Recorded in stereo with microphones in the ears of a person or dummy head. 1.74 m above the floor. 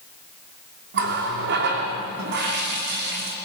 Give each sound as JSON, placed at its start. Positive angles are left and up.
{"t": 0.9, "sound": "a running tap", "side_deg": -55, "distance_m": 2.5}